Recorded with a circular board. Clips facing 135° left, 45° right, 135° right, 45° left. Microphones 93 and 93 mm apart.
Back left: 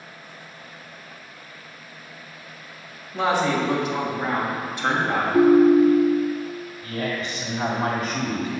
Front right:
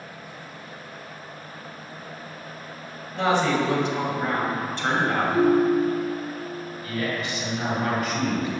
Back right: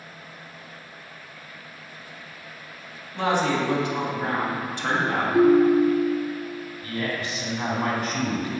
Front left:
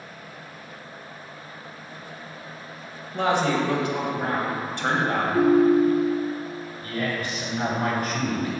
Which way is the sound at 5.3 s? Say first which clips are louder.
Back left 6 dB, back right 1 dB; 165° left.